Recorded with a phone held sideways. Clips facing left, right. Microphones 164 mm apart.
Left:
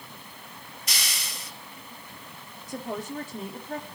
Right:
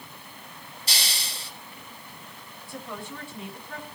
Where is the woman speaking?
40° left (ahead or behind), 3 m.